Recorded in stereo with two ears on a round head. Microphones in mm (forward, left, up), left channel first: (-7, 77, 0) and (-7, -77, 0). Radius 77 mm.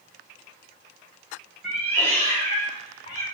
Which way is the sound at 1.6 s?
5° left (ahead or behind).